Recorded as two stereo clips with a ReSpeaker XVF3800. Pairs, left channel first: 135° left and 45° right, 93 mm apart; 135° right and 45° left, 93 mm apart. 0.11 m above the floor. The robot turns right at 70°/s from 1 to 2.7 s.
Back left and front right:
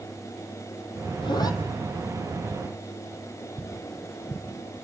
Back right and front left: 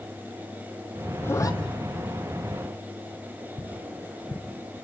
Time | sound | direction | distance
1.2 | a zipper | 160° left | 1.9 m
3.6 | tapping | 140° right | 1.9 m